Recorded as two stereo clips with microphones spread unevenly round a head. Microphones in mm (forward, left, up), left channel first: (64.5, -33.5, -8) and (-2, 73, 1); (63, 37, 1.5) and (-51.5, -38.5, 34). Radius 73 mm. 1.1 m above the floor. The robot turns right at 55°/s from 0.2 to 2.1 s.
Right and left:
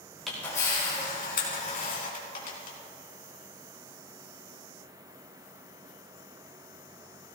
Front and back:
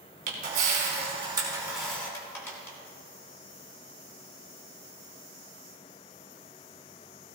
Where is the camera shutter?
145° right, 3 m; by 2.8 s 45° right, 3 m.